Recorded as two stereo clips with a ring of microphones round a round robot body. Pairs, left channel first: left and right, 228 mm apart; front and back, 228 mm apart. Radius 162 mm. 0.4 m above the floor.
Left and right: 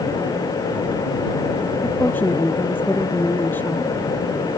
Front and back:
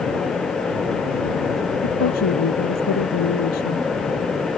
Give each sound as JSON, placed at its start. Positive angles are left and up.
{"t": 1.8, "sound": "a woman speaking", "azimuth_deg": 10}